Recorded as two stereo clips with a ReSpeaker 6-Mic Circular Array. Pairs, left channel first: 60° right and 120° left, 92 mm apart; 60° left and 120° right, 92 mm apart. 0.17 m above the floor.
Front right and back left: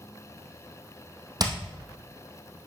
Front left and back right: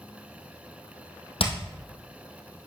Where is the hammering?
75° left, 2 m.